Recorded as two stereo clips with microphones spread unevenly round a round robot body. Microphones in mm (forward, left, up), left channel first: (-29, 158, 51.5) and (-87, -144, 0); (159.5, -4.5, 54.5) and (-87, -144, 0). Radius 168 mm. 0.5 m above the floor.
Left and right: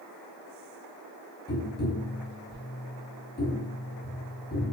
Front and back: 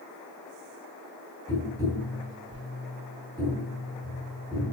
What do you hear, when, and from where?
1.5 s tapping: 140° left, 0.8 m